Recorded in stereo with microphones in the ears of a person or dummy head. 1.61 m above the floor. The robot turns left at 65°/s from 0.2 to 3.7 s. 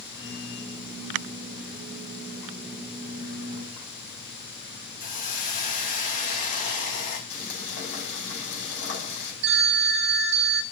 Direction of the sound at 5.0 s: 45° left (ahead or behind).